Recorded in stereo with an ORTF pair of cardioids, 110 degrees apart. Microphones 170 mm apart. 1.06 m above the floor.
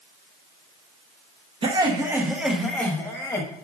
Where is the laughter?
30° right, 1.1 m; by 3.5 s 20° left, 1.5 m.